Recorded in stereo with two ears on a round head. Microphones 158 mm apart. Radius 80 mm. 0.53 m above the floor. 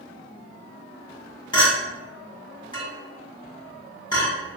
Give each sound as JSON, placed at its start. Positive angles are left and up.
{"t": 1.5, "sound": "a clink", "side_deg": 25, "distance_m": 1.6}